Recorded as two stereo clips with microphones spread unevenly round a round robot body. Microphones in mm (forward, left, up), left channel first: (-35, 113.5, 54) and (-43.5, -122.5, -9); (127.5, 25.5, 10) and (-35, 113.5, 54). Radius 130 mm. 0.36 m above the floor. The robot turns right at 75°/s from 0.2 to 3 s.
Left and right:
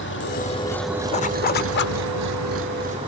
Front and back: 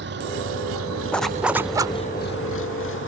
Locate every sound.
0.0 s an engine running: 130° left; by 3.1 s 20° right
1.1 s a zipper: 20° left; by 2.0 s 85° left